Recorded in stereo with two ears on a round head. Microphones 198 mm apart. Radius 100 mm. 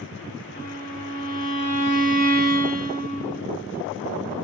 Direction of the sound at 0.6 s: 40° left (ahead or behind).